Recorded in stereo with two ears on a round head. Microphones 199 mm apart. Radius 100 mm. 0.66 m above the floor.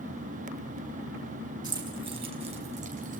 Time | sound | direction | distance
1.6 | keys jangling | 20° right (ahead or behind) | 5 m